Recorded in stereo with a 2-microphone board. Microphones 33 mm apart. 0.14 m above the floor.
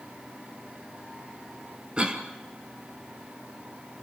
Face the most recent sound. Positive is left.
turn(degrees=-25)  # may be behind; listen again after turning